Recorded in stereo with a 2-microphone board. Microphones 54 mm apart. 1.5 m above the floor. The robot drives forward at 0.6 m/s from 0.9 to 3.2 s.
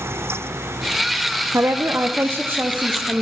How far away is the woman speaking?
About 0.8 m.